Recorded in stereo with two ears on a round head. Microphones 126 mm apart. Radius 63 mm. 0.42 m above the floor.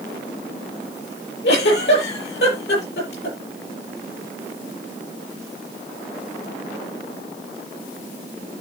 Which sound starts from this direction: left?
A giggle, at 1.4 s.